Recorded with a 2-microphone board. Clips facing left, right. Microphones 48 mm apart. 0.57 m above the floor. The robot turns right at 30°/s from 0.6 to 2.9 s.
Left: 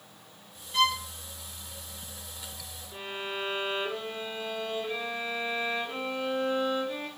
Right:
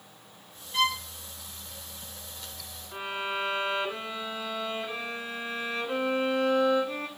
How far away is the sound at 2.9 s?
About 5.5 m.